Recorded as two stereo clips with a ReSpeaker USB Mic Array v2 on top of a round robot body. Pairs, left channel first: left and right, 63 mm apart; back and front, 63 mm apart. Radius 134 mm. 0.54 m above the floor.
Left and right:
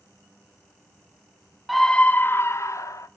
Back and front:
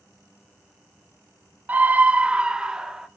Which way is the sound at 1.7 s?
Straight ahead.